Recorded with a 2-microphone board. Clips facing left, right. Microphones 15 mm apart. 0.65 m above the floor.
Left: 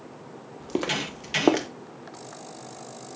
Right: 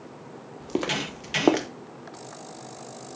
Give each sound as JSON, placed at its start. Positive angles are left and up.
{"t": 0.6, "sound": "footsteps", "side_deg": 5, "distance_m": 0.9}